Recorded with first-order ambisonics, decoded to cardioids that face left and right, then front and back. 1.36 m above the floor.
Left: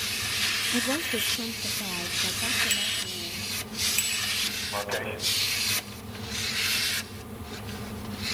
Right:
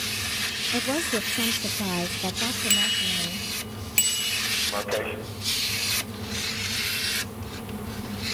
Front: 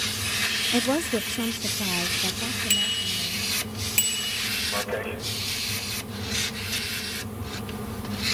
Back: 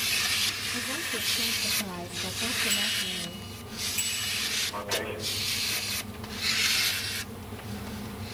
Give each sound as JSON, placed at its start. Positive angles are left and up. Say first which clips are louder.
{"t": 0.7, "sound": "a woman speaking", "louder": "right 1 dB, front 7 dB", "azimuth_deg": -5, "distance_m": 0.8}
{"t": 2.7, "sound": "a bicycle bell", "louder": "right 5 dB, front 4 dB", "azimuth_deg": -50, "distance_m": 4.0}
{"t": 4.7, "sound": "a man speaking", "louder": "right 3 dB, front 3 dB", "azimuth_deg": -65, "distance_m": 6.5}